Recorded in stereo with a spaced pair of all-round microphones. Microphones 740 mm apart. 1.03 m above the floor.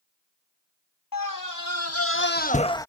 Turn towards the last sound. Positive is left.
turn(degrees=5)  # may be behind; listen again after turning